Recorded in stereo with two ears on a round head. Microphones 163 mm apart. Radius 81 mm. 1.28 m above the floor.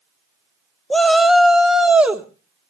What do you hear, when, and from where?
0.9 s a shout: 5° left (ahead or behind), 1.1 m; by 2.3 s 10° right (ahead or behind), 1.7 m